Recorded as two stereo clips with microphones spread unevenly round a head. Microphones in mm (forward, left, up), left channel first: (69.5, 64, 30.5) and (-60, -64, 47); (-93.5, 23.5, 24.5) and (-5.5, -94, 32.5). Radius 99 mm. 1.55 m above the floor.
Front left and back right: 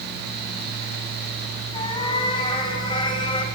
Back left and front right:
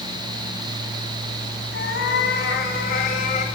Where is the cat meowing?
110° left, 2.5 m; by 3.5 s 105° left, 1.7 m.